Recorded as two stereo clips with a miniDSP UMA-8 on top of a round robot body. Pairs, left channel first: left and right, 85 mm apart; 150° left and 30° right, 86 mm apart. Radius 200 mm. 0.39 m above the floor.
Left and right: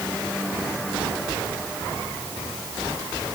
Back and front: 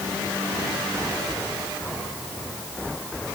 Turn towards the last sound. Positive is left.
No sound to turn to.